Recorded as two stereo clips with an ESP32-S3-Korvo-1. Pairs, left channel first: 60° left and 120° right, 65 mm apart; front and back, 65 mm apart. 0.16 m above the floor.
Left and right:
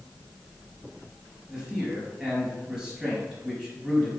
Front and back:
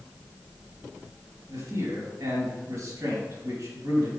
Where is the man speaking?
160° left, 3.5 m.